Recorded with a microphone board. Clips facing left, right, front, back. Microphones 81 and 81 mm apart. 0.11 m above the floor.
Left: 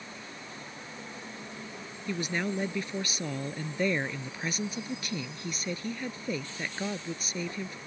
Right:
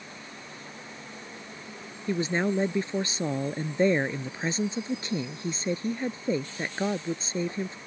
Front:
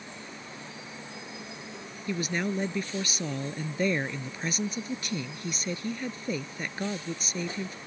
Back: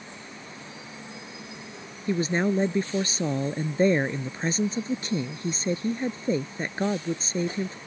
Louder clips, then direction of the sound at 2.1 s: Right 5 dB, back 6 dB; 135° right.